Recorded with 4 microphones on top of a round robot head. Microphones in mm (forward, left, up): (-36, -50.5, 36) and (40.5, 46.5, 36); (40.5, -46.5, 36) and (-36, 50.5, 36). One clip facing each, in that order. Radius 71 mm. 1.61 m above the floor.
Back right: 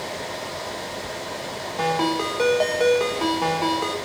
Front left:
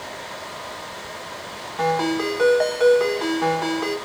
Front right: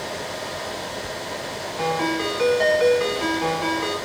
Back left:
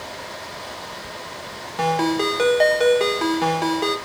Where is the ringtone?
160° left, 1.1 m.